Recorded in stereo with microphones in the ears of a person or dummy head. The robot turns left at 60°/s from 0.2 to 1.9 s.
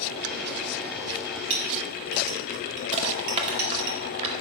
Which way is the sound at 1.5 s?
35° right (ahead or behind).